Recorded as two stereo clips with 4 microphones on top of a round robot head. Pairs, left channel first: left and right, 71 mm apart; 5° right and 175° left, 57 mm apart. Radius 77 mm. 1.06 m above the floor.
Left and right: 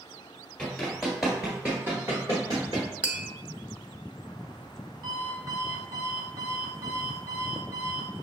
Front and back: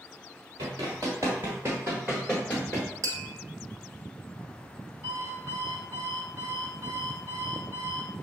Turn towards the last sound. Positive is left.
turn(degrees=-115)